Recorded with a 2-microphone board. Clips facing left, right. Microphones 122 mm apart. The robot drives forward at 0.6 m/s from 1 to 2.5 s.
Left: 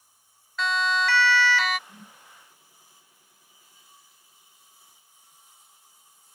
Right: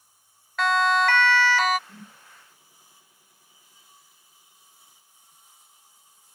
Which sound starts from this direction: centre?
A whoosh, at 1.9 s.